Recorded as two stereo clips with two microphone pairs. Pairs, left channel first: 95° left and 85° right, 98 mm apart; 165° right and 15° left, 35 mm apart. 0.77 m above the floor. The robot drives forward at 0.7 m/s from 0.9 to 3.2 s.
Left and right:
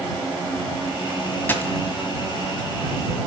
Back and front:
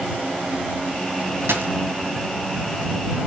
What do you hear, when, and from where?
1.5 s a dropped coin: 25° left, 1.7 m